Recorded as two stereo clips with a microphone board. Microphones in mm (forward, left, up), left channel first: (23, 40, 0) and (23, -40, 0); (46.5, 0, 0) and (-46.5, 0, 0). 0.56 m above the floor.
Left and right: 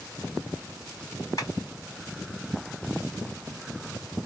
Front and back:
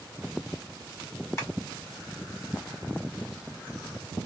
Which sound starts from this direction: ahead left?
Tapping, at 1.4 s.